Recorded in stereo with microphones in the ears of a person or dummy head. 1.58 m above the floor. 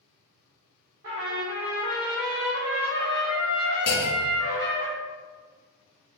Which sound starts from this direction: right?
A trumpet, at 1.0 s.